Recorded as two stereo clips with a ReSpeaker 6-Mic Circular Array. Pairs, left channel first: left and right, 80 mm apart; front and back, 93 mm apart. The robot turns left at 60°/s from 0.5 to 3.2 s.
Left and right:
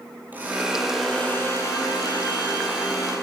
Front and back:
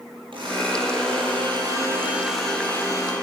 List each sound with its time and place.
0.3 s a blender: 155° right, 8 m; by 3.1 s 45° left, 8 m